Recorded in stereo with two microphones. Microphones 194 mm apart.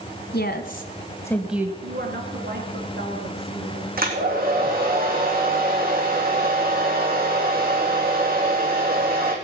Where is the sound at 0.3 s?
55° left (ahead or behind), 1.8 m; by 1.7 s 15° right (ahead or behind), 1.2 m.